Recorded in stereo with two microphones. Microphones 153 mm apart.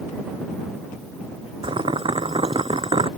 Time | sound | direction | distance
1.6 | boiling | 40° right (ahead or behind) | ?